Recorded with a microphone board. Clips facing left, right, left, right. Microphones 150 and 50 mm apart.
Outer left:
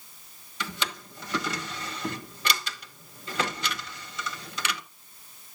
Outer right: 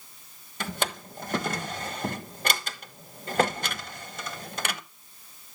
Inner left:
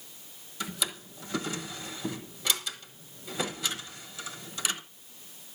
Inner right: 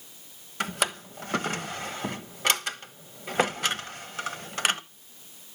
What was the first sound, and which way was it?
A drawer, 50° right (ahead or behind).